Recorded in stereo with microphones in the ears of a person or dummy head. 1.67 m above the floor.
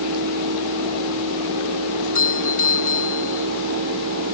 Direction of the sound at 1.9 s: 45° left (ahead or behind).